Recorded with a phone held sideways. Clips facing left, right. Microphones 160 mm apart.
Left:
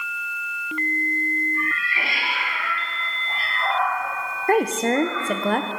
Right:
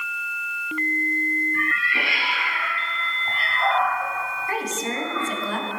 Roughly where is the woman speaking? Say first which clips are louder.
Left 10 dB; left.